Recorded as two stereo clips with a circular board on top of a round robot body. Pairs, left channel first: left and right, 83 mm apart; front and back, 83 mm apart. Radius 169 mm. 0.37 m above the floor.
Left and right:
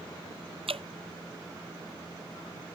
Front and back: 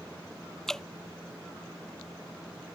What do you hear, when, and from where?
0.7 s dripping: 85° right